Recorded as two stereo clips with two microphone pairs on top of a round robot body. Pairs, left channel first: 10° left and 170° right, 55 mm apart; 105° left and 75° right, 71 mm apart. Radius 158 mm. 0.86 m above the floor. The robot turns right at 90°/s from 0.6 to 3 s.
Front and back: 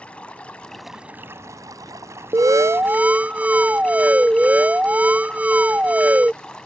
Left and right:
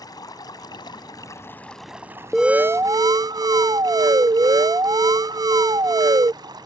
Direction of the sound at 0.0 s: 80° left.